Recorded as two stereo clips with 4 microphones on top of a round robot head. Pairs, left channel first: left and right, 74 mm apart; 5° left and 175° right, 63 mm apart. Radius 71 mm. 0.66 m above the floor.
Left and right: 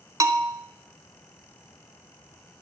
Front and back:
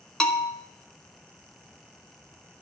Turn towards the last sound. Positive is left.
turn(degrees=-70)